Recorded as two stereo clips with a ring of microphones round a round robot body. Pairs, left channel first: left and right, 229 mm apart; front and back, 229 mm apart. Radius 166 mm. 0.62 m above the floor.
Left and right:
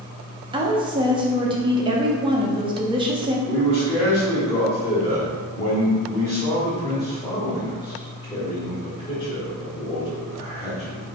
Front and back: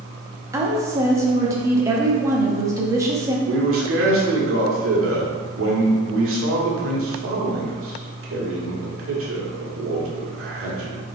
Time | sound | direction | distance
0.5 | a woman speaking | 125° right | 0.7 m
3.5 | a man speaking | 160° left | 1.4 m